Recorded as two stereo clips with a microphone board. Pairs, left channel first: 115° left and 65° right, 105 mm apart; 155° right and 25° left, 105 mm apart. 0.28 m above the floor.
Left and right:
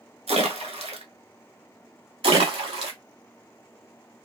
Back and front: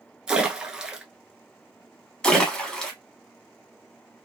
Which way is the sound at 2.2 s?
75° right.